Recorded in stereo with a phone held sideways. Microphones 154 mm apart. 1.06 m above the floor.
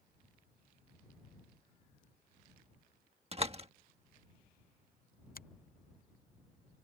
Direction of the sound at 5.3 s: 65° left (ahead or behind).